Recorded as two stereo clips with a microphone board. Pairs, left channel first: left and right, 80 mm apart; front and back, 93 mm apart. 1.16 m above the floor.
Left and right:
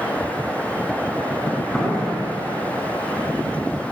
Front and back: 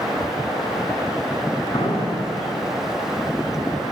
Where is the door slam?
5° left, 10 m.